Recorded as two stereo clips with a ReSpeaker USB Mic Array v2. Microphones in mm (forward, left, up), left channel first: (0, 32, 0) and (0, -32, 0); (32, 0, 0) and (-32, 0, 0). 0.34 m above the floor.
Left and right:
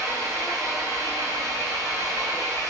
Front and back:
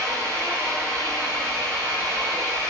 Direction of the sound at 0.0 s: 130° right.